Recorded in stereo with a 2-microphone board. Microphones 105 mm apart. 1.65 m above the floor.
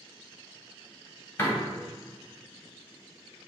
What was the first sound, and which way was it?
A door slam, 25° left (ahead or behind).